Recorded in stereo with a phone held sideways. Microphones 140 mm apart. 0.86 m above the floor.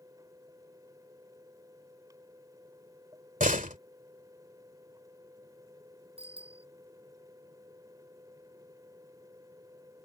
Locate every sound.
0.0 s a fan: 25° right (ahead or behind)
3.4 s a door slam: 70° right (ahead or behind)
6.2 s a bicycle bell: 45° right (ahead or behind)